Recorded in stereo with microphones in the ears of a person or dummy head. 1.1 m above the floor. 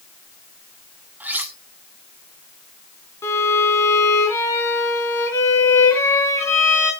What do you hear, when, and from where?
1.2 s cutlery clinking: 5° right (ahead or behind), 1.6 m
3.2 s a violin: 20° left (ahead or behind), 3.5 m